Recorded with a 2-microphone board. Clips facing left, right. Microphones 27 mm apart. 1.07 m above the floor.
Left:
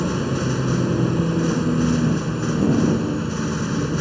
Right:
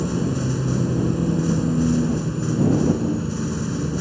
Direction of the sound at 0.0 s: 30° left (ahead or behind).